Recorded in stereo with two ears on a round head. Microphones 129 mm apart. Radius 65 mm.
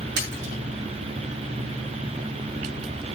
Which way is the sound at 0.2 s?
85° right.